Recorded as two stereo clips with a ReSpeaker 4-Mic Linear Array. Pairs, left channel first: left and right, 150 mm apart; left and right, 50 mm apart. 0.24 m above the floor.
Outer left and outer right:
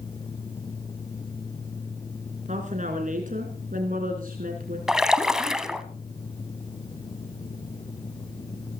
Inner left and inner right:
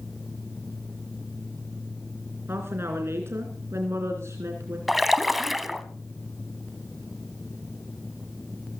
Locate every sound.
2.5 s a woman speaking: 55° right (ahead or behind), 2.5 m; by 4.8 s 65° right (ahead or behind), 2.5 m
4.9 s a splash: 5° right (ahead or behind), 1.0 m